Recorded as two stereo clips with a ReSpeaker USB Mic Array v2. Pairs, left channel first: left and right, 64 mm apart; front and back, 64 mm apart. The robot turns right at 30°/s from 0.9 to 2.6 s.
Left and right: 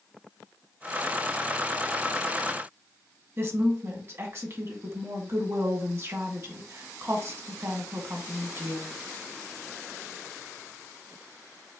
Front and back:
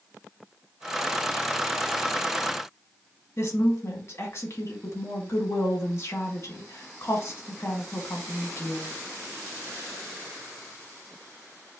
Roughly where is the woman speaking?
Ahead right.